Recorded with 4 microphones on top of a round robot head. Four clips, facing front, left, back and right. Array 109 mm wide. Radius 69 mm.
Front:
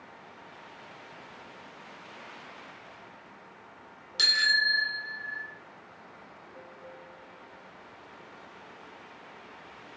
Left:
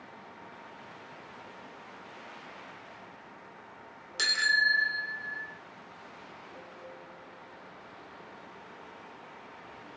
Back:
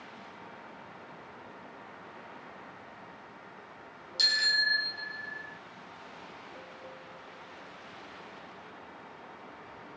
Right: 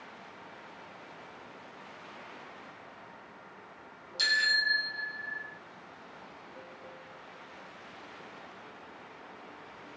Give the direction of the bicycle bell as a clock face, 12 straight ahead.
10 o'clock.